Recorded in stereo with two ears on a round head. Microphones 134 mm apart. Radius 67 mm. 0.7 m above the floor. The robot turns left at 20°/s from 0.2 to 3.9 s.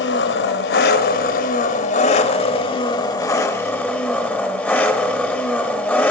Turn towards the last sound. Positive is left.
turn(degrees=10)